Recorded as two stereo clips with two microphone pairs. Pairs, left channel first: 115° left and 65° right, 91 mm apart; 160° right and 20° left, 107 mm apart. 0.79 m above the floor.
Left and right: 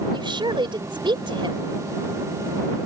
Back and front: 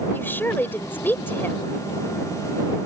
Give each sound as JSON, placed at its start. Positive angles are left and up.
{"t": 0.1, "sound": "a woman speaking", "azimuth_deg": -90}